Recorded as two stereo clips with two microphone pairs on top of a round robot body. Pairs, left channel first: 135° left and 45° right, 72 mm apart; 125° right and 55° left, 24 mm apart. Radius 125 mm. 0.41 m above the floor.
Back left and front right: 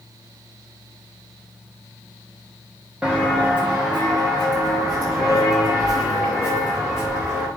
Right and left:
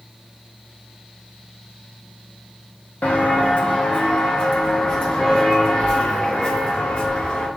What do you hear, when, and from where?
3.0 s footsteps: 125° right, 1.6 m; by 7.5 s 110° right, 5 m